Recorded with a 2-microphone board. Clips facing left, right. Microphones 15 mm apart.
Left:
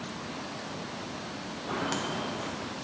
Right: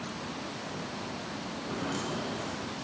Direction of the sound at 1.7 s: 50° left (ahead or behind).